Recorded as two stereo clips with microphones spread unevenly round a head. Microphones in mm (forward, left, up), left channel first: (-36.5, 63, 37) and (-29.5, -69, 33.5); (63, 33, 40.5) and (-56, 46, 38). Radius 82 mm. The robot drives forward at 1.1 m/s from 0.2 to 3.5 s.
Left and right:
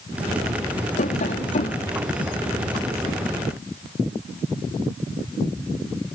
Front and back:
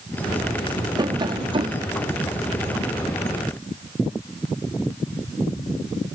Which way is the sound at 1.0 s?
120° left.